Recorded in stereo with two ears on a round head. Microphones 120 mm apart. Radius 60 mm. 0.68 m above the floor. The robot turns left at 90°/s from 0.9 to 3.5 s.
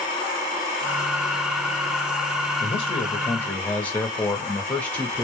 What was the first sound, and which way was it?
A man speaking, 95° left.